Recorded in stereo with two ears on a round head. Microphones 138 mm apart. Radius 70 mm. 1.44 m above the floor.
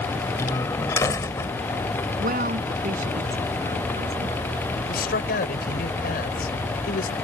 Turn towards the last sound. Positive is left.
turn(degrees=70)  # may be behind; listen again after turning